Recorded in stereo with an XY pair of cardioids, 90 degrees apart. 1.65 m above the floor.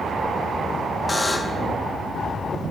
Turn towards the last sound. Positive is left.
turn(degrees=25)